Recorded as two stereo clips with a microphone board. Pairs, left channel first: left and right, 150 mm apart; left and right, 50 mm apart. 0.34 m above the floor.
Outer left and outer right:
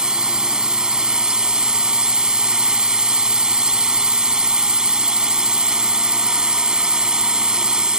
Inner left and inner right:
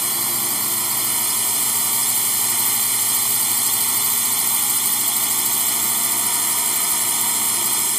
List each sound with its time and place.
0.0 s a drone: 5° right (ahead or behind)